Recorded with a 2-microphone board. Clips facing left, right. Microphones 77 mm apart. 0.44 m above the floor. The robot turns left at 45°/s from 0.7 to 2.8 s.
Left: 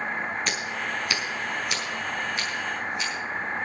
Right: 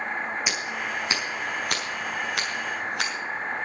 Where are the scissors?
10° right (ahead or behind), 5.5 m; by 3.1 s 70° right (ahead or behind), 5.5 m.